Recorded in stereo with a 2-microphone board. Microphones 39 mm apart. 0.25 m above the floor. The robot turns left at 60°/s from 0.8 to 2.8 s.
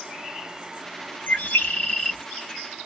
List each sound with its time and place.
1.3 s a bird: 65° left, 1.3 m; by 2.2 s 10° left, 1.3 m